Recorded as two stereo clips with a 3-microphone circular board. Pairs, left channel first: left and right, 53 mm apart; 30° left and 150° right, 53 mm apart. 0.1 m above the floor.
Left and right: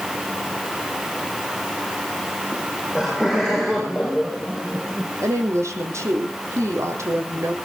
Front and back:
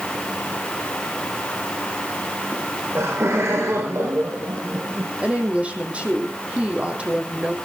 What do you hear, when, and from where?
2.5 s laughter: 165° right, 8 m; by 5.1 s 175° right, 5.5 m
5.2 s a woman speaking: 85° right, 3.5 m